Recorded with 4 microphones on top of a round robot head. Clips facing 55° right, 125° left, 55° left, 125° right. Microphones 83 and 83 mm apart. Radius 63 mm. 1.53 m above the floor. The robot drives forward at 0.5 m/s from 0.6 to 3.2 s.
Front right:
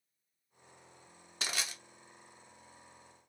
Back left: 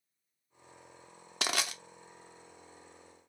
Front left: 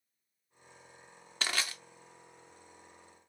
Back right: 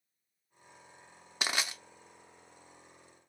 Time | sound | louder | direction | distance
1.4 | crushing | back left 5 dB, back right 1 dB | 155° left | 0.5 m